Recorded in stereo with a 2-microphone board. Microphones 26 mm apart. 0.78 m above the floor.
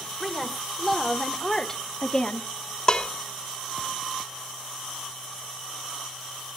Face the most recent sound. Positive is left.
turn(degrees=30)  # may be behind; listen again after turning